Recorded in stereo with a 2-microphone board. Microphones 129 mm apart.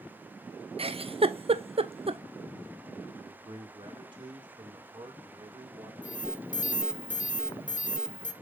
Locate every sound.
0.8 s a giggle: 50° right (ahead or behind), 0.6 m
3.1 s a man speaking: 35° right (ahead or behind), 2.0 m
6.0 s an alarm: 85° left, 1.0 m